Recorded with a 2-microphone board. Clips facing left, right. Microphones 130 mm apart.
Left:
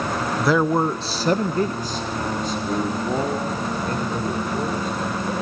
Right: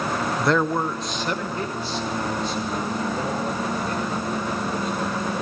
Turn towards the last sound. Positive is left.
turn(degrees=40)  # may be behind; listen again after turning